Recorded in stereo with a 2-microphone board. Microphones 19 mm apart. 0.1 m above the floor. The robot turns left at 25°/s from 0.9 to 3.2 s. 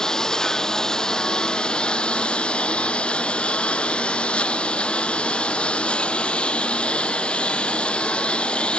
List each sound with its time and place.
0.0 s a lawn mower: 145° left; by 8.8 s 85° left